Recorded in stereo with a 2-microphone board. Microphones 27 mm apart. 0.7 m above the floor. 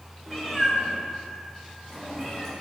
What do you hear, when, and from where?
0.3 s a cat meowing: 5° left (ahead or behind), 1.4 m; by 2.5 s centre (ahead or behind), 3.5 m